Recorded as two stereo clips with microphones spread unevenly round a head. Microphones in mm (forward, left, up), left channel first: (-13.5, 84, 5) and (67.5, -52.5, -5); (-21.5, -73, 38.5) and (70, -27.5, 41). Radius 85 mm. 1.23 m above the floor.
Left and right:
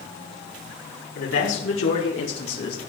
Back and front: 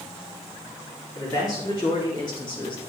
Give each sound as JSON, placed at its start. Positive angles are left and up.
{"t": 1.1, "sound": "a man speaking", "azimuth_deg": 140, "distance_m": 4.5}